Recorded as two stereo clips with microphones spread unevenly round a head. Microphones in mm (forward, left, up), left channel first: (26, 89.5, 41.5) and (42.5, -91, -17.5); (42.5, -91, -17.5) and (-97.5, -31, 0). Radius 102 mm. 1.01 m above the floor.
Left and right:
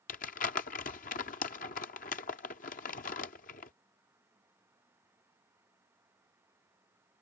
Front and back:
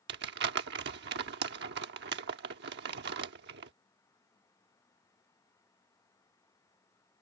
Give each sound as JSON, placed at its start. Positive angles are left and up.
{"t": 0.1, "sound": "crumpling", "azimuth_deg": 145}